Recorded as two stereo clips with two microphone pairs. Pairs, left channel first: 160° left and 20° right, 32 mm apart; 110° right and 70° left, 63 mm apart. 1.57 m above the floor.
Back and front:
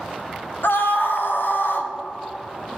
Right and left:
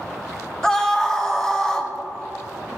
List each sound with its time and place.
0.6 s a scream: 165° left, 1.2 m